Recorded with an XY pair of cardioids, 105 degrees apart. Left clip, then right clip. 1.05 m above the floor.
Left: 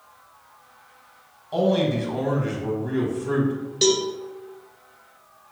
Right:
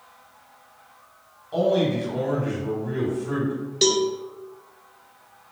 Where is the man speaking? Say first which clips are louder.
Even; 25° left, 1.1 m.